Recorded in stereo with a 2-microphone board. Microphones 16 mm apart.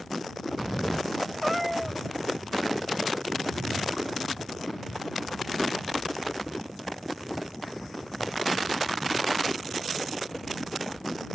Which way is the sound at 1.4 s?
Centre (ahead or behind).